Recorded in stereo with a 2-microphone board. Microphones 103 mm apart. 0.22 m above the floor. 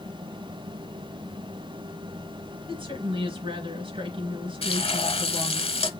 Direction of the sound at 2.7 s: 55° right (ahead or behind).